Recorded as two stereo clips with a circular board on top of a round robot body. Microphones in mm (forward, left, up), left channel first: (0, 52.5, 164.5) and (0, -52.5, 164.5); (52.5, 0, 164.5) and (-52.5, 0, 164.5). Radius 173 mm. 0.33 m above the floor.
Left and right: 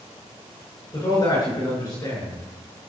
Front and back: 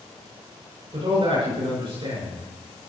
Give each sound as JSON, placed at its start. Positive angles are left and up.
{"t": 0.9, "sound": "a man speaking", "azimuth_deg": 145, "distance_m": 6.5}